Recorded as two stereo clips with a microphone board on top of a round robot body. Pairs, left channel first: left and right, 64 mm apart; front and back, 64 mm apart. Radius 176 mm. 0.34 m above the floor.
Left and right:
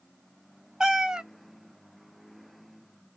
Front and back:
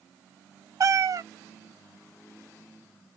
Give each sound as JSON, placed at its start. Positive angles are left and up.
{"t": 0.8, "sound": "a cat meowing", "azimuth_deg": -170, "distance_m": 0.5}